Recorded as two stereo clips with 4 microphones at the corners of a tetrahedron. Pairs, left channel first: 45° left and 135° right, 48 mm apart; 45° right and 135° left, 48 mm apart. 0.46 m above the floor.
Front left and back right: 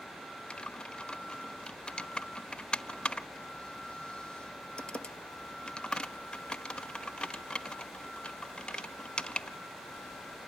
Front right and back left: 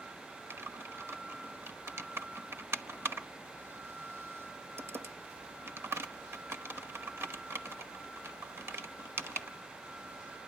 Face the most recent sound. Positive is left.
turn(degrees=115)